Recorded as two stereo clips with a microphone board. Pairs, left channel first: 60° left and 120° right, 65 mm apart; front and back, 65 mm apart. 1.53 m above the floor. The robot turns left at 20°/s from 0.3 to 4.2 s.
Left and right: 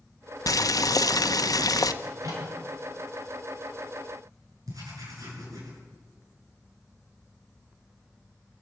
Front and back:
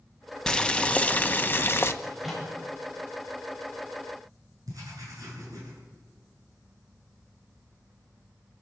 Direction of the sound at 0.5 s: 75° left.